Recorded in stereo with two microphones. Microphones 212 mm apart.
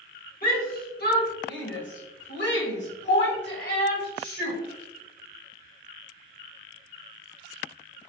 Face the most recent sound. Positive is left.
turn(degrees=50)  # may be behind; listen again after turning